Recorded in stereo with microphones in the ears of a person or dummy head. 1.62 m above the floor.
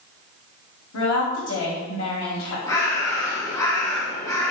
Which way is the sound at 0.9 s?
75° left (ahead or behind).